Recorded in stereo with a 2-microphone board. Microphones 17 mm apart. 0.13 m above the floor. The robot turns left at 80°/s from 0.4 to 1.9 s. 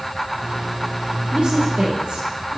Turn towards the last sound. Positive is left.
turn(degrees=-115)